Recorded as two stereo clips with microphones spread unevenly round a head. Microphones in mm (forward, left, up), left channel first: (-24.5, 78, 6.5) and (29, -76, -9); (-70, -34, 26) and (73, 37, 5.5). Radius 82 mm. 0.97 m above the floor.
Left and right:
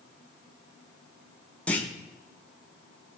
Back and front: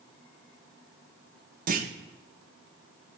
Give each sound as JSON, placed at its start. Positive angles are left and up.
{"t": 1.7, "sound": "a clunk", "azimuth_deg": 25, "distance_m": 1.0}